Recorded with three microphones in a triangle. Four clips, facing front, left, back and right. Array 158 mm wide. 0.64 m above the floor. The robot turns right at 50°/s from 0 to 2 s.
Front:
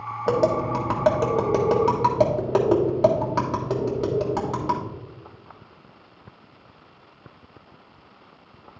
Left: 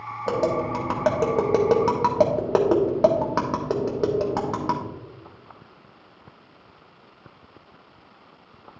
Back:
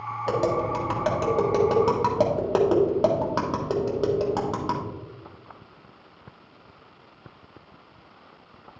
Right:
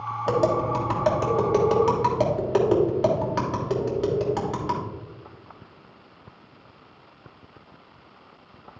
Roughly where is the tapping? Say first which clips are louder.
Right 1 dB, front 3 dB; ahead.